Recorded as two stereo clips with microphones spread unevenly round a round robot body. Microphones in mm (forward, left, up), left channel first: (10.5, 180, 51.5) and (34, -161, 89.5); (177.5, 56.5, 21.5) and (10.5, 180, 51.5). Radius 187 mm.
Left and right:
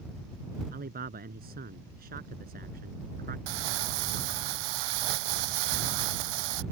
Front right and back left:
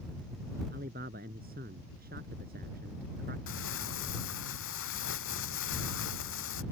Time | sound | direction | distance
0.7 | a man speaking | 150° right | ?
3.5 | crumpling | 80° right | ?